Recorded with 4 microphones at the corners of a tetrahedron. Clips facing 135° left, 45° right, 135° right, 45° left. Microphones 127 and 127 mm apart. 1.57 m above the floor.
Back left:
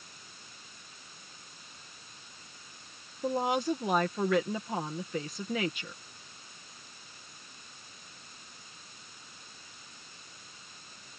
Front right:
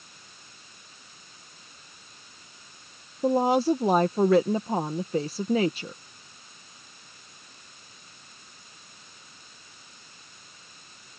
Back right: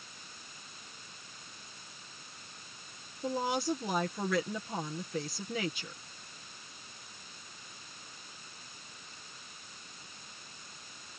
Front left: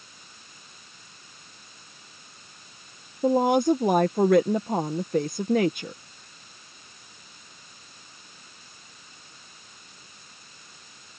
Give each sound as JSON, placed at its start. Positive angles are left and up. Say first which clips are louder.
{"t": 3.2, "sound": "a woman speaking", "louder": "front right 8 dB, front left 12 dB", "azimuth_deg": 10}